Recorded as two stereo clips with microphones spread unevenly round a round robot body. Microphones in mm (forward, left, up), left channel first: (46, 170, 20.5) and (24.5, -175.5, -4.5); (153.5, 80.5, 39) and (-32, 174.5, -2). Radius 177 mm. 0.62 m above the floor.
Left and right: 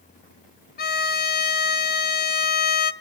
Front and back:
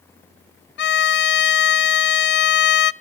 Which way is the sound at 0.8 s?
20° left.